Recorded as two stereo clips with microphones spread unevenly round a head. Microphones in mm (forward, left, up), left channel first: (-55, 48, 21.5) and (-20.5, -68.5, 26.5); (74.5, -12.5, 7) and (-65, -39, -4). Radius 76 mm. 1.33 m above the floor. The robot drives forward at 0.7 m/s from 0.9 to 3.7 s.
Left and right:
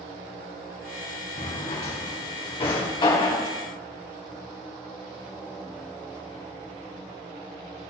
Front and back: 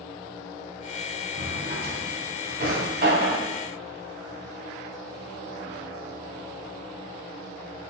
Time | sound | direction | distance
1.4 | a drawer | 140° left | 1.9 m